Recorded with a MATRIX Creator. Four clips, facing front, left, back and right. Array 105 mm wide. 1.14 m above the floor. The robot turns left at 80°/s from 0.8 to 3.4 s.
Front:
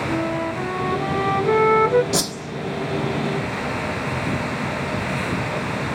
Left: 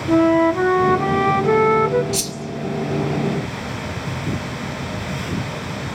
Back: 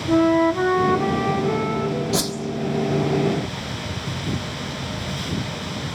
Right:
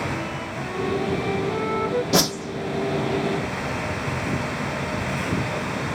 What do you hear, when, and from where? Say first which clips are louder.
0.1 s a flute: left 16 dB, back 11 dB; 115° left, 0.8 m; by 2.0 s 15° left, 0.8 m
2.1 s a whoosh: right 6 dB, even; 80° right, 1.6 m; by 2.4 s 100° right, 1.6 m